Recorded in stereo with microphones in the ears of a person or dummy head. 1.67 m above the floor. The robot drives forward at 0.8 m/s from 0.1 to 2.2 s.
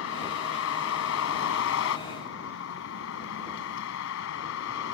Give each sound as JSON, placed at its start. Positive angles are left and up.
{"t": 0.0, "sound": "a vehicle", "side_deg": 80}